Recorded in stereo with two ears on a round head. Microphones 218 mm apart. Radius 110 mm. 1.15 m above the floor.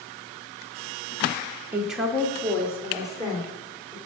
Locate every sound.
1.7 s a woman speaking: 10° right (ahead or behind), 1.0 m; by 4.0 s 15° left (ahead or behind), 3.5 m